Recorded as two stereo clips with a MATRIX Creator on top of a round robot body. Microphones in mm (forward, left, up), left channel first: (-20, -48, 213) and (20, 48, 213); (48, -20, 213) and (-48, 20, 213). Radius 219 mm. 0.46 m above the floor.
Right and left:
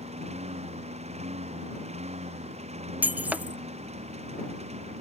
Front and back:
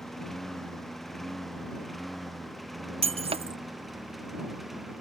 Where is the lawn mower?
65° left; by 5.0 s 70° left.